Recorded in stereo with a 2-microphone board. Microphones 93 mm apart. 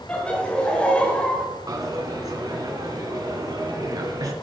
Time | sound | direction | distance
0.1 | laughter | 15° left (ahead or behind) | 1.7 m
1.7 | a dropped coin | 40° right (ahead or behind) | 1.8 m